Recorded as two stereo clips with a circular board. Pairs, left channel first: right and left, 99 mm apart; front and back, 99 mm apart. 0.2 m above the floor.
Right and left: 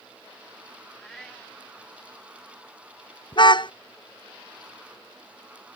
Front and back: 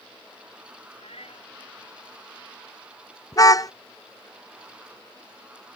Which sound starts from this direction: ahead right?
A car horn, at 3.3 s.